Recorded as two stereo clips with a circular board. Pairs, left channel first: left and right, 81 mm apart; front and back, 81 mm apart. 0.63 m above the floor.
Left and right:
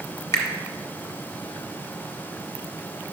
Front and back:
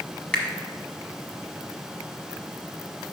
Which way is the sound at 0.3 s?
70° left.